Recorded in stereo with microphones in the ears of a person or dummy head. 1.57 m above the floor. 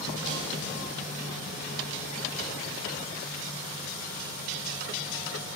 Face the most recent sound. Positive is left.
turn(degrees=-35)  # may be behind; listen again after turning